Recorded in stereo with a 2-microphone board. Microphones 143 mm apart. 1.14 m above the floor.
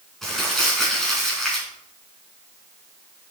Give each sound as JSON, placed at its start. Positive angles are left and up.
{"t": 0.2, "sound": "crumpling", "side_deg": 0, "distance_m": 4.5}